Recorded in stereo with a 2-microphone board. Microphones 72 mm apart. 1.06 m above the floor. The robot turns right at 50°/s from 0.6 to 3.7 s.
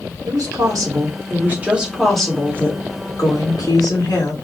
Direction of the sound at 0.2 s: 75° right.